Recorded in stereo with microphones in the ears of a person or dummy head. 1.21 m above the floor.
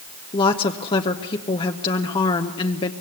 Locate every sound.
0.3 s a woman speaking: 25° left (ahead or behind), 0.9 m